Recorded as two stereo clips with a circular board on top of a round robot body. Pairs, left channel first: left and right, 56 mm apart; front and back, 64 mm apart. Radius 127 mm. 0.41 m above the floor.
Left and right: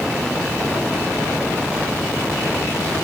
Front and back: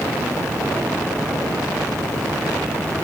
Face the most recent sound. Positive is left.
No sound to turn to.